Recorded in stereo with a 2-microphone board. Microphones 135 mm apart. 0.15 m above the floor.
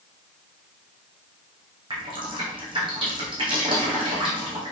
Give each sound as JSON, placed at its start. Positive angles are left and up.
{"t": 1.9, "sound": "dripping", "side_deg": -35, "distance_m": 3.5}